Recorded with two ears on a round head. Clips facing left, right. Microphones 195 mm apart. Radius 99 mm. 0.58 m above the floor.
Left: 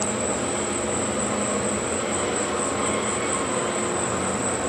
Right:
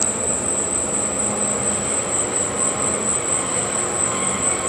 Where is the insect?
25° right (ahead or behind).